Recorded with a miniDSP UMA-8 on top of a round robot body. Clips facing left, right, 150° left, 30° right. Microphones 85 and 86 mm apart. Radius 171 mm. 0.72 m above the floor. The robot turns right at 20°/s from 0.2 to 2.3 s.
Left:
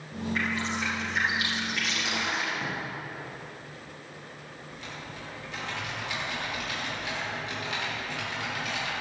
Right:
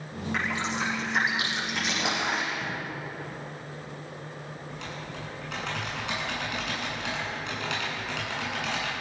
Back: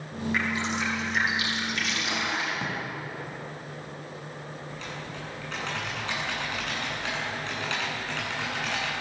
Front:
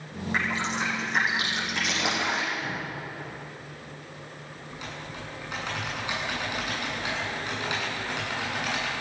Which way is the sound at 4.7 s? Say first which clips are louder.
Right 2 dB, front 2 dB; 110° right.